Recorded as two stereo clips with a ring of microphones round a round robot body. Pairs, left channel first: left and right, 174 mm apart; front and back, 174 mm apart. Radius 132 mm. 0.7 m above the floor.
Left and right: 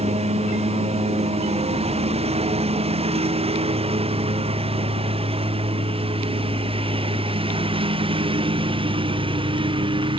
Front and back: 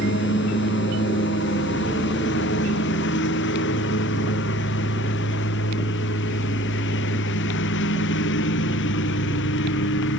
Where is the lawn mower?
35° right; by 10.2 s 30° right.